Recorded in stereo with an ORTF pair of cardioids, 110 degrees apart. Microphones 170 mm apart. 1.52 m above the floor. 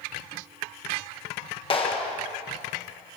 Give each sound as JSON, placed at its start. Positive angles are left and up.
{"t": 1.7, "sound": "a clap", "azimuth_deg": 30, "distance_m": 1.5}